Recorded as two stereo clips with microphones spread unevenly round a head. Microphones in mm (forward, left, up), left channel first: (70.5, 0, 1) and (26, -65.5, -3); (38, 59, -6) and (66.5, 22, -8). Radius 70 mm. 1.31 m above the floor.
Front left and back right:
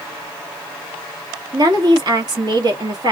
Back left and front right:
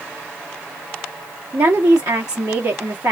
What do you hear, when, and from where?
1.5 s a woman speaking: 90° right, 1.5 m